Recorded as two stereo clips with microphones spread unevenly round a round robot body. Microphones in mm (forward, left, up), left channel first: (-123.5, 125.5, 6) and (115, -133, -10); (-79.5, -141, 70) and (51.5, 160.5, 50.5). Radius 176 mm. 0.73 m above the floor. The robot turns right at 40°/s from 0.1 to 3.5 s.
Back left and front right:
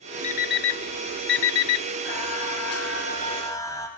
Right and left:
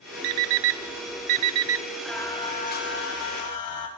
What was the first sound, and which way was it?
An alarm clock, 60° left.